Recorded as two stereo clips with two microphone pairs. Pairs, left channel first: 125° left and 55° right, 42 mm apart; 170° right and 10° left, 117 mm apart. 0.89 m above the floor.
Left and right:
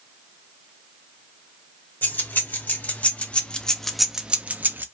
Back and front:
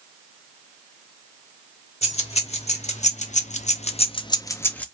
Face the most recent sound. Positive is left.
turn(degrees=-90)